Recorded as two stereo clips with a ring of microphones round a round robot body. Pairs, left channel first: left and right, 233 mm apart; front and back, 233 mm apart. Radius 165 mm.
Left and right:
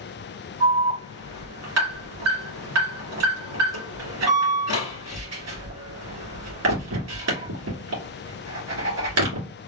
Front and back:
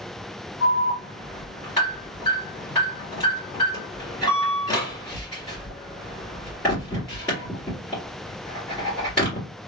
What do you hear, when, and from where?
0.6 s an alarm: 85° right, 2.0 m